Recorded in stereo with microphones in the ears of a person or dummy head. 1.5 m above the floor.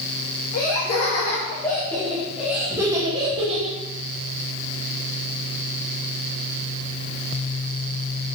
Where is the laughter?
35° left (ahead or behind), 1.5 m; by 3.8 s 35° right (ahead or behind), 1.6 m.